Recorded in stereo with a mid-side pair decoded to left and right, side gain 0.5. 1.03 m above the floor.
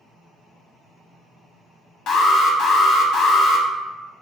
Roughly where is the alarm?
Ahead left.